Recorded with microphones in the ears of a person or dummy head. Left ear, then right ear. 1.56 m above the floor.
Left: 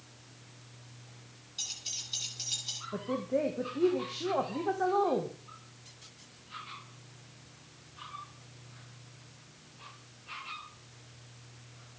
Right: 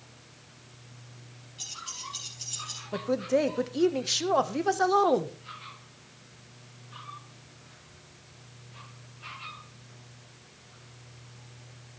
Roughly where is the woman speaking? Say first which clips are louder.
Right 7 dB; right.